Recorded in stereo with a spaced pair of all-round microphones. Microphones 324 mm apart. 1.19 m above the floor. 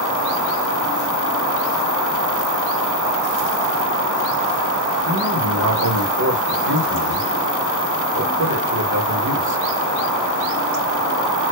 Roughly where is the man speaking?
Right.